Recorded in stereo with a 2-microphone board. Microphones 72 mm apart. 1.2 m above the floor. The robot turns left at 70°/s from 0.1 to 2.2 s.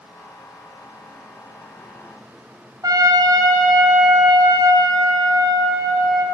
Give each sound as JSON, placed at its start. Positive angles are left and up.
{"t": 2.8, "sound": "a trumpet", "side_deg": -60, "distance_m": 0.6}